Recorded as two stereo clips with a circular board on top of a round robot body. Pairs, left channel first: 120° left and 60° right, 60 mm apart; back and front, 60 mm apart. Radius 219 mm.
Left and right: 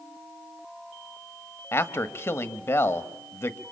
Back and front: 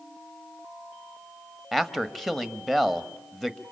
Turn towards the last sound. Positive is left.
turn(degrees=95)